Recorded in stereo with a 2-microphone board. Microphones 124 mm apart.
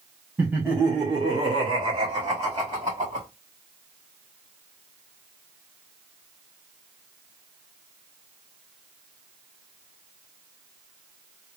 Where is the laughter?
15° right (ahead or behind), 1.3 m; by 3.3 s 45° right (ahead or behind), 1.5 m.